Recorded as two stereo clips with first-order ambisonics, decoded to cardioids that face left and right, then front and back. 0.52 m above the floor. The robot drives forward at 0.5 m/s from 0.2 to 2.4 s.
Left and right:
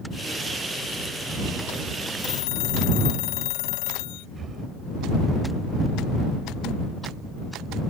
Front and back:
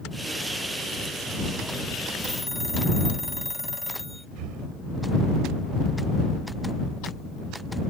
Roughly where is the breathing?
Behind right.